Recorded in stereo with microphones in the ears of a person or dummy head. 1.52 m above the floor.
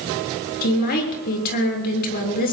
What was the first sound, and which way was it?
A woman speaking, 50° left (ahead or behind).